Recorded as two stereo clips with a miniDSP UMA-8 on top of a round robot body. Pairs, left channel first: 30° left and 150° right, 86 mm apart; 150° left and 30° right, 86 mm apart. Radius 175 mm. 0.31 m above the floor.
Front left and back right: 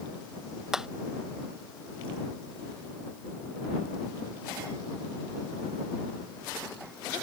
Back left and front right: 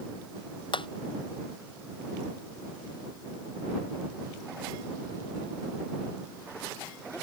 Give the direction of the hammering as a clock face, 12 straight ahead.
8 o'clock.